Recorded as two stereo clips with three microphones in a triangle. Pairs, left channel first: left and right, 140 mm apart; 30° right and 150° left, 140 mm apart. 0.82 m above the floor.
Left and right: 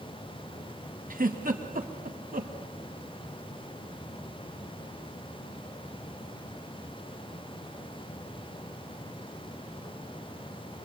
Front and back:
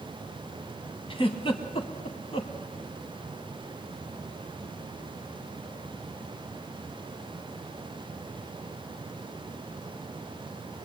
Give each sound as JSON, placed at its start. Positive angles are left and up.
{"t": 1.1, "sound": "a giggle", "azimuth_deg": -80, "distance_m": 2.5}